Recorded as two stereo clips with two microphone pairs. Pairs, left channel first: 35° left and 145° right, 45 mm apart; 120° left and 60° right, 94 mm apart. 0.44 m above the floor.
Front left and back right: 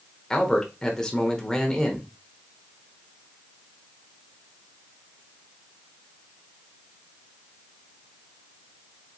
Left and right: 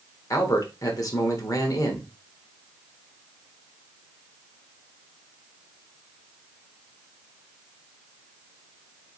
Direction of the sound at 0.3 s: 105° left.